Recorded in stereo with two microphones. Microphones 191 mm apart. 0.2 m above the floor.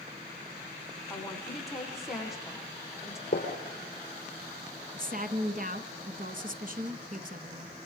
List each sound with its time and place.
1.1 s a woman speaking: centre (ahead or behind), 9 m
3.3 s a gunshot: 50° left (ahead or behind), 4.5 m
5.0 s a woman speaking: 55° right (ahead or behind), 1.8 m